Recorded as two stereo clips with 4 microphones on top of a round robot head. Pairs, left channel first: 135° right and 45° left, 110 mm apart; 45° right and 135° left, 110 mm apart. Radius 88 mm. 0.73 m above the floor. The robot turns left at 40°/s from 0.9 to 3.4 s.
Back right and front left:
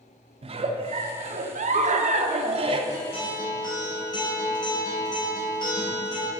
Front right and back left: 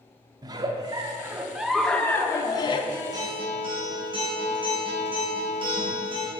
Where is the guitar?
165° right, 4 m; by 6.3 s 175° left, 4 m.